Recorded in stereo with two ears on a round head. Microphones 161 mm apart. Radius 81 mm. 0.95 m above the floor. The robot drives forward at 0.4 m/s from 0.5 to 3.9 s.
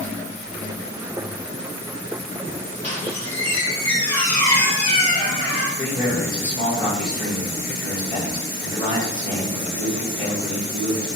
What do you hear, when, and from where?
2.8 s a squeak: 35° left (ahead or behind), 1.9 m; by 5.7 s 30° left (ahead or behind), 2.5 m
5.8 s a man speaking: 25° left (ahead or behind), 1.5 m